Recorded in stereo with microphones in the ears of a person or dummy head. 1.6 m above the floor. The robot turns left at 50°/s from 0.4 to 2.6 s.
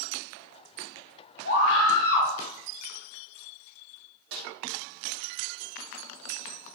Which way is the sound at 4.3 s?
60° right (ahead or behind).